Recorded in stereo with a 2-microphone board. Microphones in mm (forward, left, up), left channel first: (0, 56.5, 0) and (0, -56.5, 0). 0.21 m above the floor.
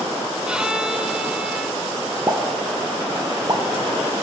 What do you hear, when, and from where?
0.5 s a violin: 5° right (ahead or behind), 0.8 m
2.3 s a pop: 30° right (ahead or behind), 1.2 m